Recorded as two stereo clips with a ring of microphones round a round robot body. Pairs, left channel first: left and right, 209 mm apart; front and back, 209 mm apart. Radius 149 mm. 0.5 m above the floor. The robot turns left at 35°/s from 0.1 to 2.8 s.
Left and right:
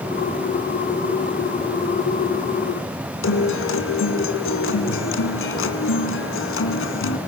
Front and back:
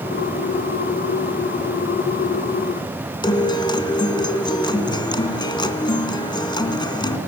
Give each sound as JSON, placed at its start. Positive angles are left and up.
{"t": 3.2, "sound": "a guitar", "azimuth_deg": 70, "distance_m": 2.0}